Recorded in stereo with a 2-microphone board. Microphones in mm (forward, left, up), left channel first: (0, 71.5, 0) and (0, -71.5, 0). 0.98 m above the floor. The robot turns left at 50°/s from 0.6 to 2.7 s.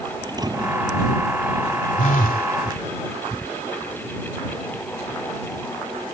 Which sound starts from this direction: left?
A phone buzzing, at 2.0 s.